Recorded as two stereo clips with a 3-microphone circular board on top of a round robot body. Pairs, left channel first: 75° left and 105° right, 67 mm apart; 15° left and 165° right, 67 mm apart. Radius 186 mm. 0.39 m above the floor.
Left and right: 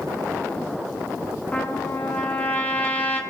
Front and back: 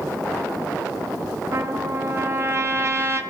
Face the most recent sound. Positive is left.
turn(degrees=145)